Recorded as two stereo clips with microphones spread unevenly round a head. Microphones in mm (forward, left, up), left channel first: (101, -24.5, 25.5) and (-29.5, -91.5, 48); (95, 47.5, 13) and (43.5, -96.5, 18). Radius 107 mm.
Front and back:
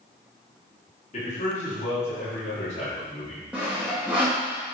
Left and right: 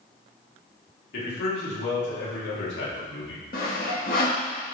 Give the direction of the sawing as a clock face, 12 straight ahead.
8 o'clock.